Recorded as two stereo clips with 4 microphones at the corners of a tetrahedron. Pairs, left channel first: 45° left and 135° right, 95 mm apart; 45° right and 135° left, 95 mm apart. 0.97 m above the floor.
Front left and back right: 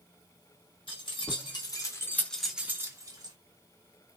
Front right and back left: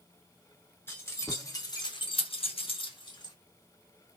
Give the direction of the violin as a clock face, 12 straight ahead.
I don't hear a violin.